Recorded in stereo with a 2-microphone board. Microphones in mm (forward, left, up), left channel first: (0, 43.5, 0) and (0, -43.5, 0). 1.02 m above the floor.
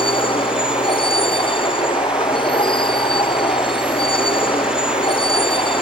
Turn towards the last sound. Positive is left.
turn(degrees=75)  # may be behind; listen again after turning